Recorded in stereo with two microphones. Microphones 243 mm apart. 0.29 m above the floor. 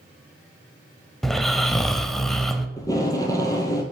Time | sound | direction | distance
1.2 | snoring | centre (ahead or behind) | 0.6 m
2.8 | tape being pulled | 15° left (ahead or behind) | 1.4 m